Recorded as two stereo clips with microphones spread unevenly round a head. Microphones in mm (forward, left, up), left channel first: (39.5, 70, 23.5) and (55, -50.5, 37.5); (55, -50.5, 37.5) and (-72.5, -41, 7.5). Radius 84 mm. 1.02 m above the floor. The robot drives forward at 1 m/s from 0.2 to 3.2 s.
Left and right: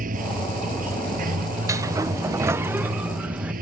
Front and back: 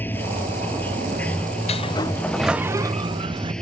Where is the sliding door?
25° right; by 3.5 s 165° right.